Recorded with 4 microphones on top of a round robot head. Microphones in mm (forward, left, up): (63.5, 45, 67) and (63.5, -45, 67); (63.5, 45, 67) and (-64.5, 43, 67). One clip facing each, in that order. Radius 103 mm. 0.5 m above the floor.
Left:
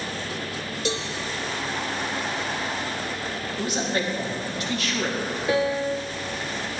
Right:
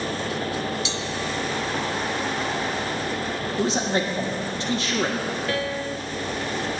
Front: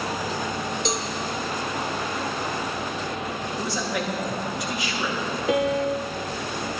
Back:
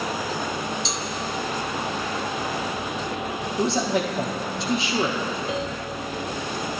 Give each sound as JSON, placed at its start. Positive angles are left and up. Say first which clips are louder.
{"t": 0.8, "sound": "a cowbell", "louder": "left 2 dB, front 3 dB", "azimuth_deg": 45, "distance_m": 1.1}
{"t": 3.6, "sound": "a man speaking", "louder": "right 3 dB, back 7 dB", "azimuth_deg": -130, "distance_m": 1.1}
{"t": 5.5, "sound": "a piano", "louder": "left 4 dB, front 7 dB", "azimuth_deg": 20, "distance_m": 0.5}